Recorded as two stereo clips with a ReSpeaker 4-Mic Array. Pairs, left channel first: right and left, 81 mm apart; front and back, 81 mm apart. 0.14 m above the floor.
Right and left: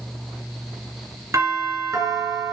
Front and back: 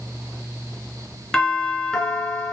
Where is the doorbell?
75° left, 2 m.